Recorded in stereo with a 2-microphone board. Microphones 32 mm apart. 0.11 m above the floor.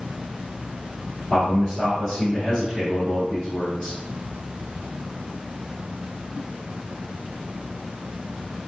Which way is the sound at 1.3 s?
15° right (ahead or behind).